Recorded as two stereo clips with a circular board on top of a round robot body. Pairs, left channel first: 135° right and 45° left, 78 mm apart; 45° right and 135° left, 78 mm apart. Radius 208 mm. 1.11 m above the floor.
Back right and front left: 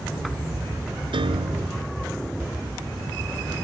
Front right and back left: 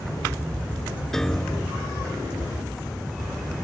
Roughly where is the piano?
Ahead left.